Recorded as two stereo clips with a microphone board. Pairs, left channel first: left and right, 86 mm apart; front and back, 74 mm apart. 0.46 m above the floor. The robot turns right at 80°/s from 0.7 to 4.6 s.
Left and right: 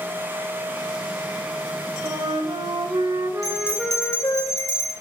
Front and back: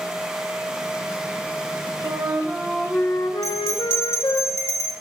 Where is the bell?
135° left, 1.7 m; by 4.9 s 130° right, 1.7 m.